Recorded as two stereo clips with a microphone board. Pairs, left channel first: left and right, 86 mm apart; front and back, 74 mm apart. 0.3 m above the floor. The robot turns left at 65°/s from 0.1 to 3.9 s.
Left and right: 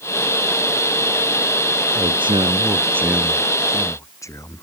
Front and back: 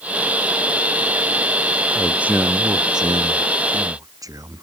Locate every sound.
1.9 s a man speaking: 90° right; by 4.6 s 140° left